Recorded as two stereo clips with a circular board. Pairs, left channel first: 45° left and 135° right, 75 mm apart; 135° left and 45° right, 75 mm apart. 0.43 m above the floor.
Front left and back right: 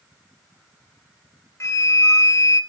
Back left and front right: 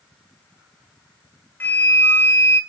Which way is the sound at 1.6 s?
80° left.